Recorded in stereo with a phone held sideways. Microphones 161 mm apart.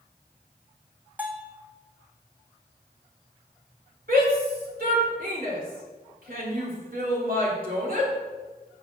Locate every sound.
1.2 s a bell: 10° right (ahead or behind), 1.1 m
4.1 s a shout: 65° right (ahead or behind), 3 m